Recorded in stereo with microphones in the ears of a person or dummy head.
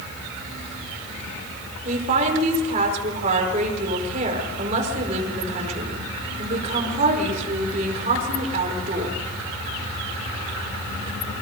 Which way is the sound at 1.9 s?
35° right (ahead or behind).